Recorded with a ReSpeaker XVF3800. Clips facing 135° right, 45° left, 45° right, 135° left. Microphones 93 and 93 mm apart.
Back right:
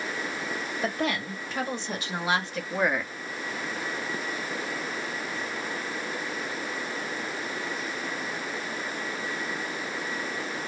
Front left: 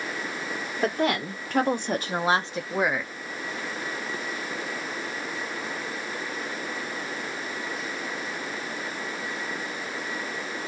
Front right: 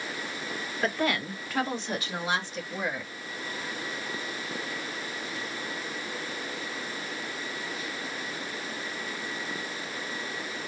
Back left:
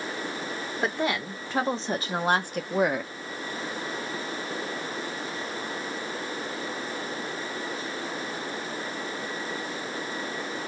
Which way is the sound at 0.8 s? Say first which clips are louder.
Front left 5 dB, even; 65° left.